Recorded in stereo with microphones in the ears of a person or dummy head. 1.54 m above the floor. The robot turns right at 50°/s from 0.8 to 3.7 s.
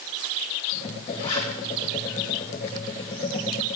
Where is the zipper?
40° left (ahead or behind), 6.5 m; by 1.5 s 25° left (ahead or behind), 6.5 m.